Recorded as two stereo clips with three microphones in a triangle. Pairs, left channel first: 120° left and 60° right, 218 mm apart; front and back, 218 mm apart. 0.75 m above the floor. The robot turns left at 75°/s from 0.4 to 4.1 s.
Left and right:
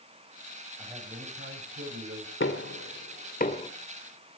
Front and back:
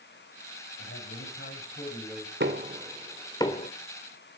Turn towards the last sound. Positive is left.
turn(degrees=20)